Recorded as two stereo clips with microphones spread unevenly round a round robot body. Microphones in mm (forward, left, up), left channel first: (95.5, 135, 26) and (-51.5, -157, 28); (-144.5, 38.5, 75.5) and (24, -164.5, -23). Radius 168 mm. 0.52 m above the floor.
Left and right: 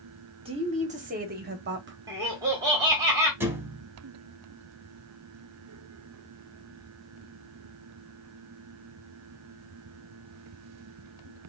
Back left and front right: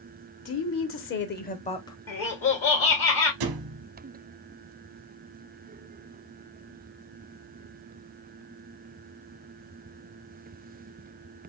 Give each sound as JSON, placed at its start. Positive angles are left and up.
{"t": 0.5, "sound": "a woman speaking", "azimuth_deg": 170, "distance_m": 1.1}
{"t": 2.1, "sound": "laughter", "azimuth_deg": 170, "distance_m": 1.2}
{"t": 3.4, "sound": "a thud", "azimuth_deg": -35, "distance_m": 0.6}